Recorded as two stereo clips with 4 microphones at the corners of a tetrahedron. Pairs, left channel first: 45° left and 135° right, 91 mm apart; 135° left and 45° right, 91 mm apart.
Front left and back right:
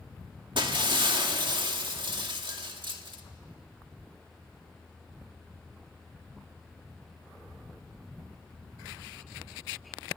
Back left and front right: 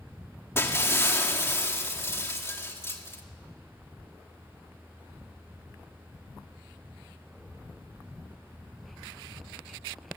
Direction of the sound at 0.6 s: 165° right.